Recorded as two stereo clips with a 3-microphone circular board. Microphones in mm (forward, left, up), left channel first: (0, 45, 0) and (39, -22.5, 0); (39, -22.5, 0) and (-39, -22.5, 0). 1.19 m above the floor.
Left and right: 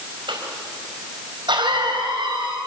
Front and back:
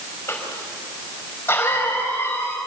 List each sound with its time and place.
0.3 s a cough: 60° right, 5 m